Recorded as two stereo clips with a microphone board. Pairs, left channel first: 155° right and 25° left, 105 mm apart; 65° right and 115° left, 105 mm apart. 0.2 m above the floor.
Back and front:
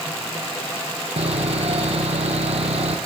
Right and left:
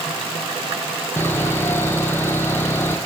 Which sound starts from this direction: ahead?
Sawing, at 1.2 s.